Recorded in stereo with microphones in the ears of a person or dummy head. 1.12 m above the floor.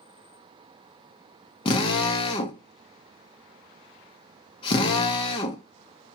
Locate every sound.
1.6 s a drill: 30° left (ahead or behind), 0.8 m